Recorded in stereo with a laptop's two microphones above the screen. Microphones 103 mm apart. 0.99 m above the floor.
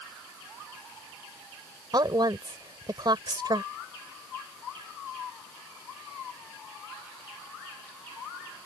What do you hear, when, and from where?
1.9 s a woman speaking: 45° right (ahead or behind)